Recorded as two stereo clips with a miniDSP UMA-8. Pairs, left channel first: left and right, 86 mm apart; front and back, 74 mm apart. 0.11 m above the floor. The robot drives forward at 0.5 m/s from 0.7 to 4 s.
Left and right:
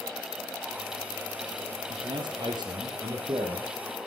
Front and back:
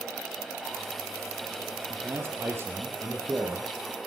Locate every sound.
1.9 s a man speaking: 120° right, 4 m; by 3.7 s 130° right, 4.5 m